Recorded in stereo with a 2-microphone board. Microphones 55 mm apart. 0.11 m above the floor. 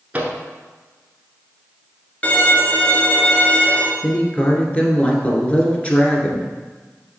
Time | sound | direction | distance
0.1 | a microwave | 25° right (ahead or behind) | 1.0 m
2.2 | a violin | 25° left (ahead or behind) | 0.8 m
4.0 | a woman speaking | 20° left (ahead or behind) | 1.4 m